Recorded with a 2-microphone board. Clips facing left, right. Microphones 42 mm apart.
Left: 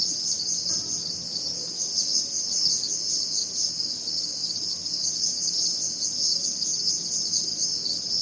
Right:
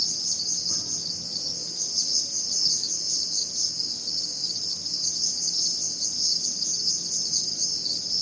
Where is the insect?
85° left, 1.6 m.